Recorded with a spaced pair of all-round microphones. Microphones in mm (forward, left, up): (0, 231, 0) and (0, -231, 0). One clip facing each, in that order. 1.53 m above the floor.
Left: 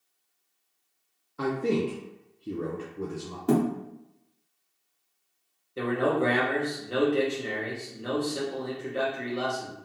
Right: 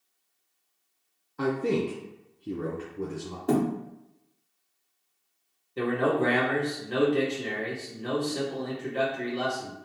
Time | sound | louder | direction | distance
1.4 | a man speaking | even | 5° right (ahead or behind) | 0.6 m
3.5 | a thud | left 1 dB | 20° left (ahead or behind) | 1.1 m
5.8 | a man speaking | even | 5° right (ahead or behind) | 1.4 m